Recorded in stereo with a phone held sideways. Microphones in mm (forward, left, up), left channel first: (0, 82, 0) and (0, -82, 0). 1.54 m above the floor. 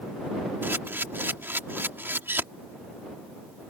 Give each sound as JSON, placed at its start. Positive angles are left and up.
{"t": 0.6, "sound": "a camera shutter", "side_deg": -15}